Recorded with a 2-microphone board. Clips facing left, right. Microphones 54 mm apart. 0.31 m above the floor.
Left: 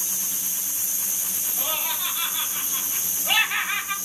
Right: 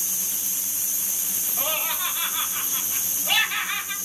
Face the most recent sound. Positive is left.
turn(degrees=25)  # may be behind; listen again after turning